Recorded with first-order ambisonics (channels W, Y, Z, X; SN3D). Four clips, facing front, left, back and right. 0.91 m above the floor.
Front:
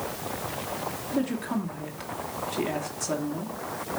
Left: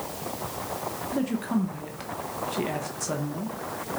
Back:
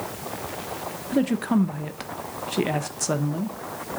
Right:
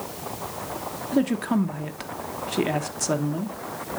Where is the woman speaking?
140° right, 0.8 m.